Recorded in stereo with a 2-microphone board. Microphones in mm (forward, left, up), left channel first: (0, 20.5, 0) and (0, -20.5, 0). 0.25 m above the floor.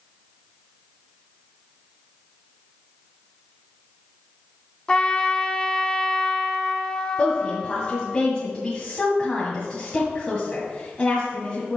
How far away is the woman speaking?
About 1.8 m.